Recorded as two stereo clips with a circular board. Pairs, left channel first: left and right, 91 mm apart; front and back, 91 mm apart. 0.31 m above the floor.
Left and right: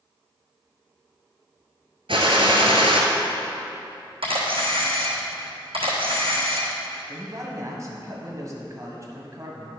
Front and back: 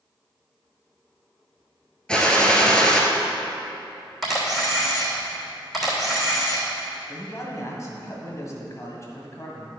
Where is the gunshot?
80° right, 1.2 m.